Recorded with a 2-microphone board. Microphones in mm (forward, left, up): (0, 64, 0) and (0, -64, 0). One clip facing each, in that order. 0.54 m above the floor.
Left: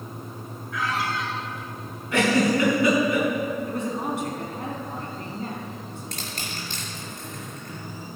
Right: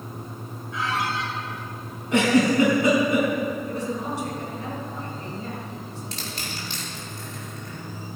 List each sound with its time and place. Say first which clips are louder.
0.7 s a squeak: even; 25° right (ahead or behind), 3.5 m
2.1 s a giggle: right 2 dB; 20° right (ahead or behind), 5 m
3.7 s a man speaking: left 1 dB; 55° left (ahead or behind), 4.5 m
6.1 s crushing: right 1 dB; 45° left (ahead or behind), 5.5 m